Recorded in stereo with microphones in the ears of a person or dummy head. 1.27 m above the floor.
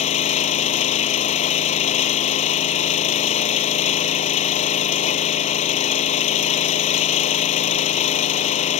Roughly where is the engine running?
Left.